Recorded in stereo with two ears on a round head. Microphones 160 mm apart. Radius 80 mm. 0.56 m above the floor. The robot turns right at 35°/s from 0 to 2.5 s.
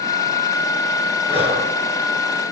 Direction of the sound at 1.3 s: 30° left (ahead or behind).